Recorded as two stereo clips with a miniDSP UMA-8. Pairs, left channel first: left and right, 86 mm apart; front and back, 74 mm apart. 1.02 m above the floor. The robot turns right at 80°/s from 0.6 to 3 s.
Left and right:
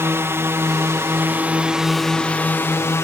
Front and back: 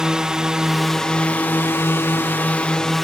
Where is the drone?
110° right; by 3.0 s 85° left.